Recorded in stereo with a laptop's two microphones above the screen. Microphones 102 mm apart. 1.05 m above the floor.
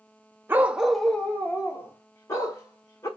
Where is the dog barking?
20° right (ahead or behind), 0.5 m; by 3.1 s 35° left (ahead or behind), 1.6 m.